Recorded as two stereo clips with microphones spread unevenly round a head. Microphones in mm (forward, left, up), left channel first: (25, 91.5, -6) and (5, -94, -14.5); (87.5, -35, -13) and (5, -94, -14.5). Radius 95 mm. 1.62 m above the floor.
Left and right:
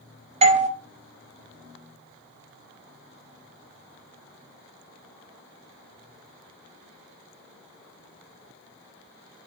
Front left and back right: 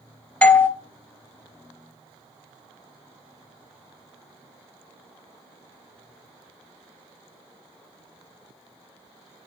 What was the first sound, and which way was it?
A doorbell, 40° right.